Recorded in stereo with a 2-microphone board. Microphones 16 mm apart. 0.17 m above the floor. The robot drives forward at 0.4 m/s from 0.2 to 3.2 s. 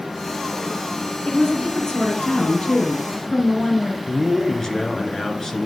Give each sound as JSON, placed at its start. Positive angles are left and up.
{"t": 1.2, "sound": "a woman speaking", "side_deg": 50, "distance_m": 3.5}
{"t": 4.1, "sound": "a man speaking", "side_deg": 35, "distance_m": 2.5}